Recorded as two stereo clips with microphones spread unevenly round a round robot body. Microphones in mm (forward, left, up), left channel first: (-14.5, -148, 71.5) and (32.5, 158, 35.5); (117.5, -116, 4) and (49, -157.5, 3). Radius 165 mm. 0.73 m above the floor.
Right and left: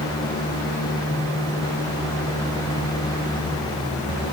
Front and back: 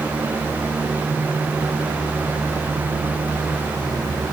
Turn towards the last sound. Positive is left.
No sound to turn to.